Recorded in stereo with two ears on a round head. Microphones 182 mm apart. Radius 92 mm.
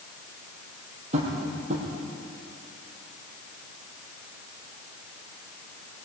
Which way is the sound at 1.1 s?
35° right (ahead or behind).